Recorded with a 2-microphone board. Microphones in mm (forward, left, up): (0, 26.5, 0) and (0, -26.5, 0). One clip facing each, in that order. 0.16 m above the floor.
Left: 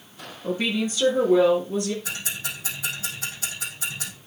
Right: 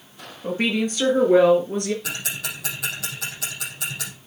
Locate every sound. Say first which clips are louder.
0.4 s a woman speaking: right 2 dB; 55° right (ahead or behind), 3.5 m; by 1.9 s 60° right (ahead or behind), 3 m
2.0 s ticking: right 2 dB; 75° right (ahead or behind), 5 m